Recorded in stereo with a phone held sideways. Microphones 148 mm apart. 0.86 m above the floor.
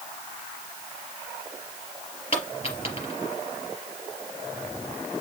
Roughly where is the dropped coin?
Left.